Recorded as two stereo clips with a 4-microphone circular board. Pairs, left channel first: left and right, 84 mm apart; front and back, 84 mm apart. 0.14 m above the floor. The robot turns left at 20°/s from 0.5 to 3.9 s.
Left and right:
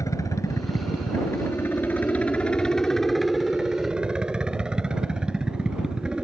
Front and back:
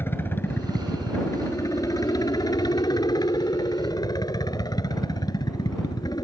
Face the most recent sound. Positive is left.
turn(degrees=-10)